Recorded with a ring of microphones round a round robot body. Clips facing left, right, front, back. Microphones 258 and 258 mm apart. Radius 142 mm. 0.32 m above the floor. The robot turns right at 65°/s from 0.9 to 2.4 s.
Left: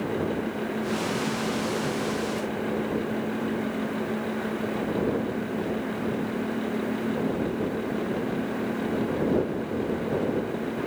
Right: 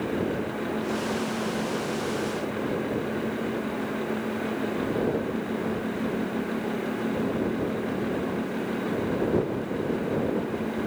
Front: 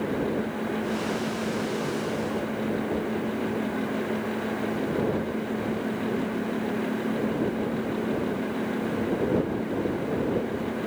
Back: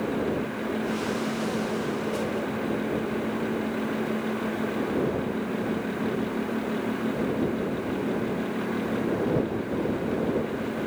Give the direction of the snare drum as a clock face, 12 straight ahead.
I don't hear a snare drum.